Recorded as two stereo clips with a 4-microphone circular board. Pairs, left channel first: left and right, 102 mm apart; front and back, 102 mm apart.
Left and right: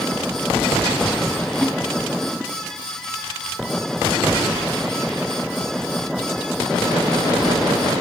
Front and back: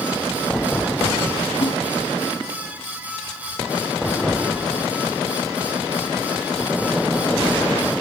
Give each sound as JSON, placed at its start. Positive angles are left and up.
{"t": 1.6, "sound": "a snare drum", "azimuth_deg": 10, "distance_m": 2.5}